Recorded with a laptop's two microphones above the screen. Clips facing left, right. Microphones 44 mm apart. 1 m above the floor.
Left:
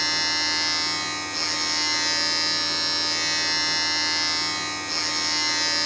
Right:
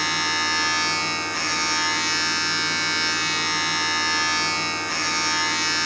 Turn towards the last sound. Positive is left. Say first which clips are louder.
# right 3 dB
turn(degrees=-45)  # may be behind; listen again after turning